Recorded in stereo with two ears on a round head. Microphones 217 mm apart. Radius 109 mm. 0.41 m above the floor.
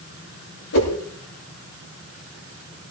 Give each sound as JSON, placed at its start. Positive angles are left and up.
{"t": 0.7, "sound": "a whoosh", "side_deg": 60, "distance_m": 8.5}